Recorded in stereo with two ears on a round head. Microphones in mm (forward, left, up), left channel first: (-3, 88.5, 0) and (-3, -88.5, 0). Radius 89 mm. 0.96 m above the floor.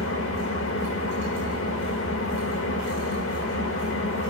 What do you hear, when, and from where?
0.0 s an engine running: 70° left (ahead or behind), 2.5 m